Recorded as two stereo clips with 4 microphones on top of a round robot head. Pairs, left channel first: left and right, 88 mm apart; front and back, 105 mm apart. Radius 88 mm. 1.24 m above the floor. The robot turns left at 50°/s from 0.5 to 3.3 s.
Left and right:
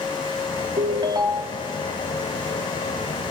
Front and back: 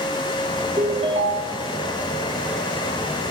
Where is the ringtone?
120° right, 1.9 m; by 1.7 s 160° right, 1.9 m.